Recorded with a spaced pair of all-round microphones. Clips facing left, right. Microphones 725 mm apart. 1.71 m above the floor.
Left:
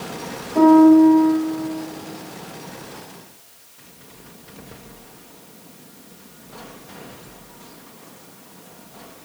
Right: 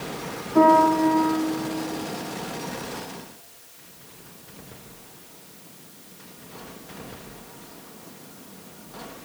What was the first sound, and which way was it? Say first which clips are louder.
A piano: left 9 dB; 40° right (ahead or behind).